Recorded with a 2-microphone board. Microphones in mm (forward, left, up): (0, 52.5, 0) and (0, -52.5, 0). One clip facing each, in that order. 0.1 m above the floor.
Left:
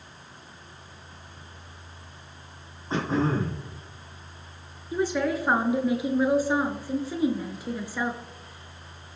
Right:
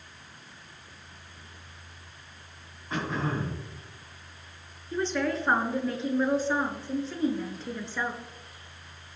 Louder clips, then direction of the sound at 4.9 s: Left 3 dB; 10° left (ahead or behind).